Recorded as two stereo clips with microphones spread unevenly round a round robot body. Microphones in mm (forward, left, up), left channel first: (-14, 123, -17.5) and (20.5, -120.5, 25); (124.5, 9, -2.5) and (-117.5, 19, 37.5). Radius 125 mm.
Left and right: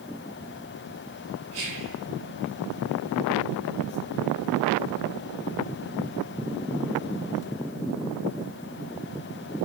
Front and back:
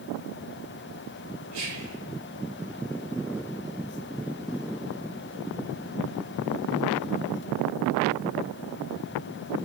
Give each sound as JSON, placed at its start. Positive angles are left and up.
{"t": 1.5, "sound": "whispering", "azimuth_deg": -140, "distance_m": 3.0}